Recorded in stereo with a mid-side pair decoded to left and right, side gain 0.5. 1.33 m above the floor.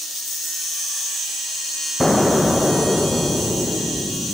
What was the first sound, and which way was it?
An explosion, 10° left.